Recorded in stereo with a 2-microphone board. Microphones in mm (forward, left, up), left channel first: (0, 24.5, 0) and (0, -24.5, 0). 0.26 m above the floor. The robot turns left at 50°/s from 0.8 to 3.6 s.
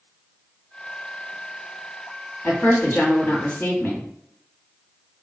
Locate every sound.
2.4 s a woman speaking: 115° left, 1.3 m; by 4.0 s 55° left, 1.3 m